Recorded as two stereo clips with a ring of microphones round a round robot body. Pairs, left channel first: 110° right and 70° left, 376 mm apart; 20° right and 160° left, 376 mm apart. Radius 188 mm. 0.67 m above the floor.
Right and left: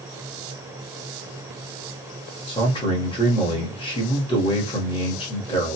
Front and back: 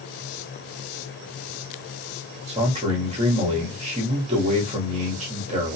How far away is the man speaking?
About 1.0 m.